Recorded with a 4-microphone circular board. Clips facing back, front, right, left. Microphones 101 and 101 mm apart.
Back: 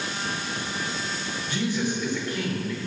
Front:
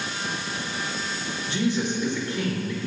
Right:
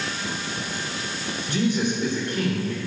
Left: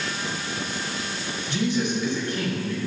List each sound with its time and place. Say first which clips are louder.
1.5 s a man speaking: front 2 dB, right 1 dB; 65° right, 2 m